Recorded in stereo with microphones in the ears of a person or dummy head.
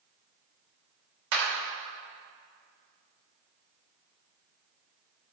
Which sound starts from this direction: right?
A clap, at 1.3 s.